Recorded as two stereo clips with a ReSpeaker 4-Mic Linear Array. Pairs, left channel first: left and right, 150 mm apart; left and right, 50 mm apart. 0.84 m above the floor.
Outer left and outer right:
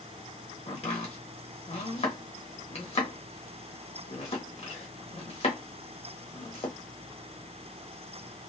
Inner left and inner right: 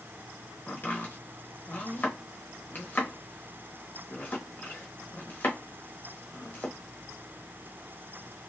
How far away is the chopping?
About 1.1 m.